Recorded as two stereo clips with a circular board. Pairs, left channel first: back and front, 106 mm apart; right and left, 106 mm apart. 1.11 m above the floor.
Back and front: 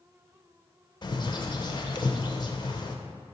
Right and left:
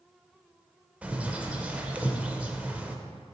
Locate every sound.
1.0 s a bird: 165° left, 0.5 m